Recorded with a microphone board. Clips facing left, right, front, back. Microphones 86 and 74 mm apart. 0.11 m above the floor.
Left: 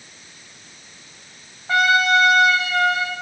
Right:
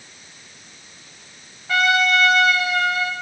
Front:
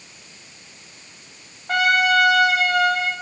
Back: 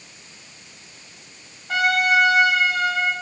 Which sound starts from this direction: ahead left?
A trumpet, at 1.7 s.